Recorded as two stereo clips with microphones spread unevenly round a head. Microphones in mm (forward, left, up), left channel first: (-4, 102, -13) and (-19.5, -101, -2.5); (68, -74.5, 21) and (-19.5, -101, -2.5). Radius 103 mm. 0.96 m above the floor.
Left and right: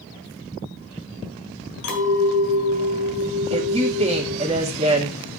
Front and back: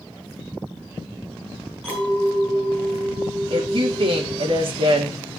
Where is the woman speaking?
155° right, 2 m.